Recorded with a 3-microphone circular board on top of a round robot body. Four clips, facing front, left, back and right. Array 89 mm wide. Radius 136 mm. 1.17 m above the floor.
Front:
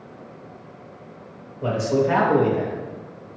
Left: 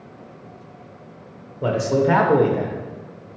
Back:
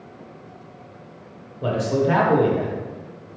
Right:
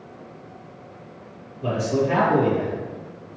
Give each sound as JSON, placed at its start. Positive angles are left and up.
{"t": 1.6, "sound": "a man speaking", "azimuth_deg": 95, "distance_m": 0.9}